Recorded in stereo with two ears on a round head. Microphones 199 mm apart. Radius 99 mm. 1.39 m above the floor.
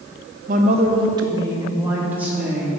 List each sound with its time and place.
0.5 s a woman speaking: 40° right (ahead or behind), 0.8 m; by 2.7 s 5° right (ahead or behind), 2.5 m